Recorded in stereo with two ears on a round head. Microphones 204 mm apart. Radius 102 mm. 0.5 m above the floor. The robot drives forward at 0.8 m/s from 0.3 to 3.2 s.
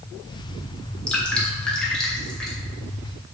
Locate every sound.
1.1 s dripping: 5° left (ahead or behind), 1.6 m